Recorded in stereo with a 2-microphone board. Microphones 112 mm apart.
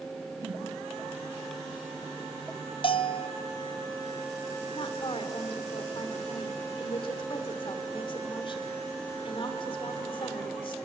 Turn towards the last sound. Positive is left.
turn(degrees=45)  # may be behind; listen again after turning